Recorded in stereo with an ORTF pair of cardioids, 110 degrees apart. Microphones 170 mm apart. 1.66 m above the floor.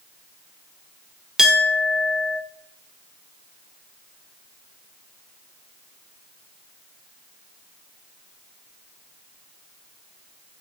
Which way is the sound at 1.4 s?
5° right.